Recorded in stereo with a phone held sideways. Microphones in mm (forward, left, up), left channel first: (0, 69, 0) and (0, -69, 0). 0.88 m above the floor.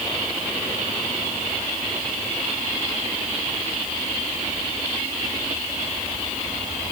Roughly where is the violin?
No violin in this recording.